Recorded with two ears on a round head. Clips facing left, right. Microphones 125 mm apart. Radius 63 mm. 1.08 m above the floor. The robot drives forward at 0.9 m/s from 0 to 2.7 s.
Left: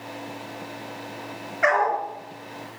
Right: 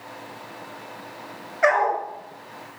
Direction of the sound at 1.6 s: 30° right (ahead or behind).